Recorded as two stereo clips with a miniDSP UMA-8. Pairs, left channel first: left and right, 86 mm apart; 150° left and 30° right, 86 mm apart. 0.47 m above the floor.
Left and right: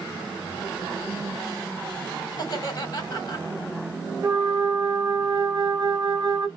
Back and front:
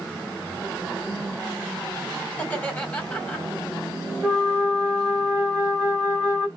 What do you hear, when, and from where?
2.3 s laughter: 80° left, 1.6 m
4.2 s a flute: 110° right, 1.0 m